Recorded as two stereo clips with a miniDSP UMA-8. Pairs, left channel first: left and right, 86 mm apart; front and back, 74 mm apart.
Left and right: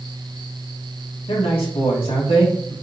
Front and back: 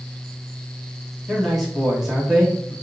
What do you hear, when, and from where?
1.3 s a man speaking: 95° left, 3 m